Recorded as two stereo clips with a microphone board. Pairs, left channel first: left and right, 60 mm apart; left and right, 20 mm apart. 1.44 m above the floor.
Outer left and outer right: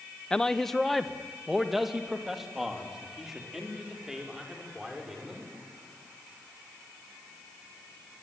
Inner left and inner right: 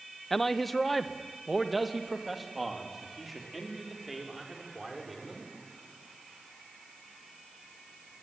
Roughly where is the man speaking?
Centre.